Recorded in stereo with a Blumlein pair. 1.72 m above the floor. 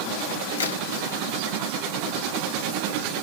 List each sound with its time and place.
0.6 s a crack: 70° left, 1.5 m